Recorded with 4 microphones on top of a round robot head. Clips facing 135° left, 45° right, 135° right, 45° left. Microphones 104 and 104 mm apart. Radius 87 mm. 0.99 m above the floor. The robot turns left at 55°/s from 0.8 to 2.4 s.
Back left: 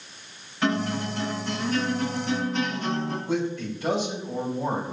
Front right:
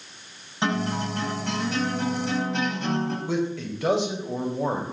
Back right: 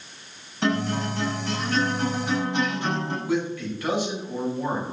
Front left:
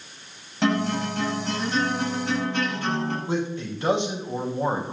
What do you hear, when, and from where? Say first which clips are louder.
0.6 s a guitar: even, front left 1 dB; 25° left, 9.5 m; by 3.2 s 60° right, 9.5 m
3.3 s a man speaking: even, back right 1 dB; 20° right, 4.5 m